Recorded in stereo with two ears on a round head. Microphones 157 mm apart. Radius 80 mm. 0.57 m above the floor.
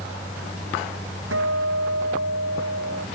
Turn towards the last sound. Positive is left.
turn(degrees=-90)